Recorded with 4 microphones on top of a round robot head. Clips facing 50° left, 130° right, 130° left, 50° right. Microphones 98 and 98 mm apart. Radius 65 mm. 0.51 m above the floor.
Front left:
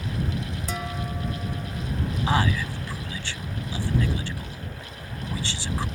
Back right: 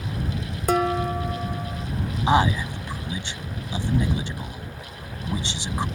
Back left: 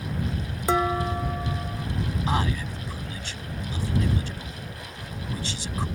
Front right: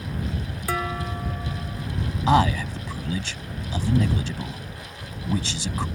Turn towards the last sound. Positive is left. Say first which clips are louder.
# back right 5 dB, front right 10 dB
turn(degrees=-60)